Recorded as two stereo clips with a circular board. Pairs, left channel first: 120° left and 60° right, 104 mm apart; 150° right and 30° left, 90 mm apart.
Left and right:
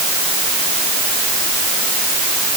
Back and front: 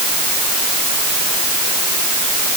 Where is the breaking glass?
I don't hear breaking glass.